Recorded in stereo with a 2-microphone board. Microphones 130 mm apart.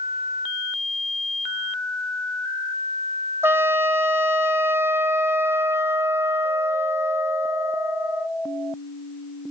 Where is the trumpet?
20° right (ahead or behind), 0.8 m.